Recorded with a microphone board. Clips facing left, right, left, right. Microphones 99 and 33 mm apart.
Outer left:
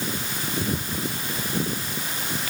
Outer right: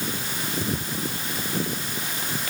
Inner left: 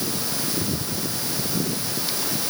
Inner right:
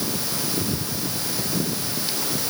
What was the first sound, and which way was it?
Only background noise.